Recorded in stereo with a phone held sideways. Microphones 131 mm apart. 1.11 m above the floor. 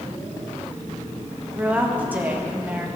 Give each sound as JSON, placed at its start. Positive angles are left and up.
{"t": 1.6, "sound": "a woman speaking", "side_deg": -15, "distance_m": 1.6}